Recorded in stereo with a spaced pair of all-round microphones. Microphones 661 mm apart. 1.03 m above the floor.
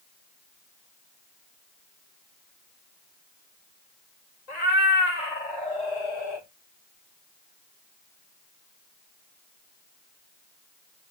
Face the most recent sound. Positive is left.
turn(degrees=35)  # may be behind; listen again after turning